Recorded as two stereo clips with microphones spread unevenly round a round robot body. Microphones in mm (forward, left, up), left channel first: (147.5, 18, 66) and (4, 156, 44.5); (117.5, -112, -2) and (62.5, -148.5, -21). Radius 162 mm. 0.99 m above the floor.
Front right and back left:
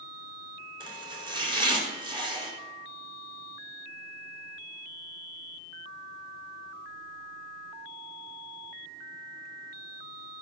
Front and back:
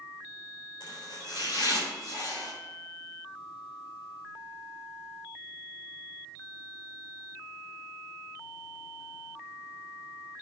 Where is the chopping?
70° left, 3.5 m.